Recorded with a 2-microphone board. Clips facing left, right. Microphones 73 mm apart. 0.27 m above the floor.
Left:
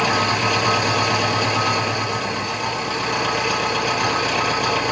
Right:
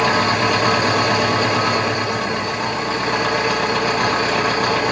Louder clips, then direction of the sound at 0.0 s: Right 3 dB; 40° right (ahead or behind).